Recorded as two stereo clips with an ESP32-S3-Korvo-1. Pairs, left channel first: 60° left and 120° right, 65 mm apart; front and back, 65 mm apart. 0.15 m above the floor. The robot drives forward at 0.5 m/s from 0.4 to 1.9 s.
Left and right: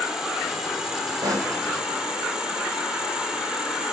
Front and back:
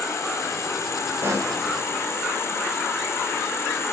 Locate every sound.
0.0 s an insect: 40° right, 7 m; by 4.0 s 45° right, 6.5 m
1.2 s a pop: 130° right, 4 m